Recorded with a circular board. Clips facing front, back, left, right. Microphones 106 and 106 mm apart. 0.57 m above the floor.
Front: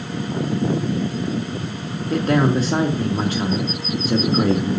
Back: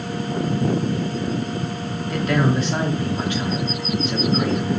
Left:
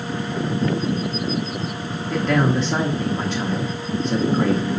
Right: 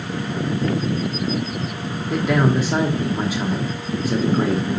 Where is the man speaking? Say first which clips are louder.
Front 3 dB, right 1 dB; 15° right, 0.8 m.